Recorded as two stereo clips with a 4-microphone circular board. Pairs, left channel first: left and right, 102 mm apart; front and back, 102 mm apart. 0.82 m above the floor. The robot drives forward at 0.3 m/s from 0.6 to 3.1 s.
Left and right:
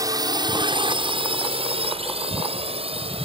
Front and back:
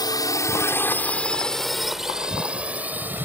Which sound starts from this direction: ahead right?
A drone, at 0.0 s.